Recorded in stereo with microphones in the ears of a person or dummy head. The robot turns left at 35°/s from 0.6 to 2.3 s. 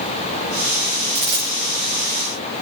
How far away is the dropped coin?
About 7 m.